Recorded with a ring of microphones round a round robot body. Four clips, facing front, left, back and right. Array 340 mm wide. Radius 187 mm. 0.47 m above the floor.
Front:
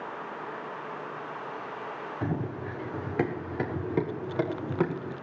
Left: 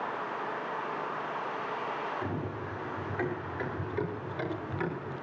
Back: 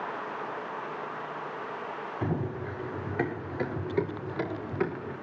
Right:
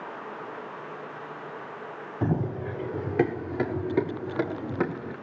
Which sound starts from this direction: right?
Running footsteps, at 2.2 s.